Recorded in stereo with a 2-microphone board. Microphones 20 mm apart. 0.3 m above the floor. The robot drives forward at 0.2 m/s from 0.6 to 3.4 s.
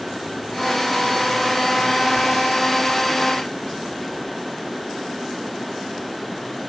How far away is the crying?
I don't hear crying.